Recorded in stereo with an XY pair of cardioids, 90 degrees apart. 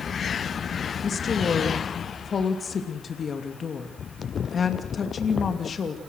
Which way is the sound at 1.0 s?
50° left.